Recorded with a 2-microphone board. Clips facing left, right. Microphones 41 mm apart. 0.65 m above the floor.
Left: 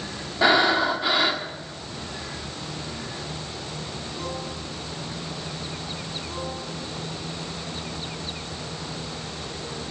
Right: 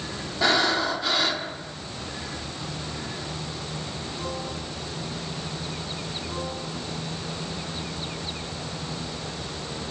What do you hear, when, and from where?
0.4 s breathing: 20° left (ahead or behind), 1.7 m